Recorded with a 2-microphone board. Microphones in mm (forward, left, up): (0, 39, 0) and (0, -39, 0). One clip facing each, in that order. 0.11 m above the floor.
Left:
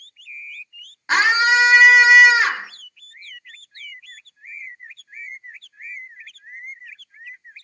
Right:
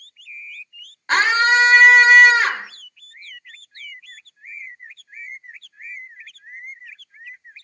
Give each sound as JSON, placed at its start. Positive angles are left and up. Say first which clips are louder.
{"t": 1.1, "sound": "a scream", "louder": "even", "side_deg": 10, "distance_m": 1.8}